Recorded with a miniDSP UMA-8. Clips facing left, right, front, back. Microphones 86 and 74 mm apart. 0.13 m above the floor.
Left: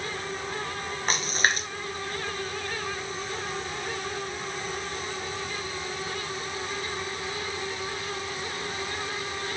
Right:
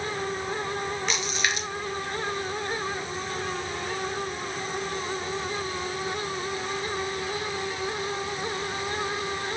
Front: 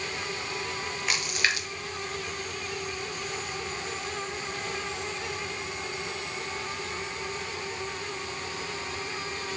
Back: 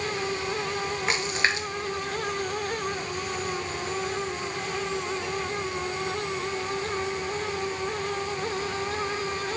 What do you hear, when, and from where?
1.1 s a splash: 125° left, 1.5 m